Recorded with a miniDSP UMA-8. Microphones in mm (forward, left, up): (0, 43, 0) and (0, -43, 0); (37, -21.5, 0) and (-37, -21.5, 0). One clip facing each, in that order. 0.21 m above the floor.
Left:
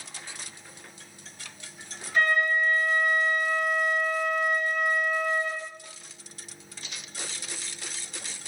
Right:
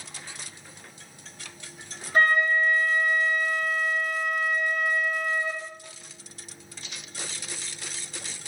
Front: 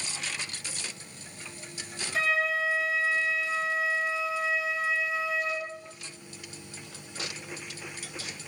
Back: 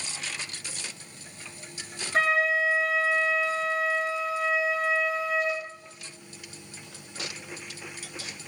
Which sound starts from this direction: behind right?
A flute, at 2.1 s.